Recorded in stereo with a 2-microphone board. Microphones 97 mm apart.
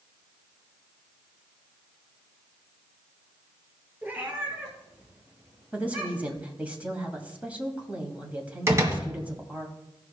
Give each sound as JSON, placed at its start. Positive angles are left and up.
{"t": 4.0, "sound": "a cat meowing", "side_deg": -20, "distance_m": 3.0}
{"t": 5.7, "sound": "a woman speaking", "side_deg": -15, "distance_m": 2.0}
{"t": 8.7, "sound": "a door slam", "side_deg": -30, "distance_m": 1.5}